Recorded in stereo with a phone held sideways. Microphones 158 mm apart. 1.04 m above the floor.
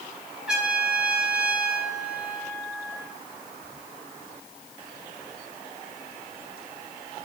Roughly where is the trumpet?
Centre.